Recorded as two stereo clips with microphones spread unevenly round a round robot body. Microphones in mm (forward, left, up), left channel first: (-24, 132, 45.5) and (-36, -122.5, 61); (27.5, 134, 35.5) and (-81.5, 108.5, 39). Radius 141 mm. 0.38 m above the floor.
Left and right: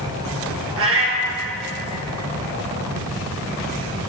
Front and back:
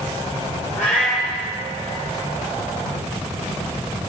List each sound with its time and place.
0.8 s a cat meowing: 50° right, 2.5 m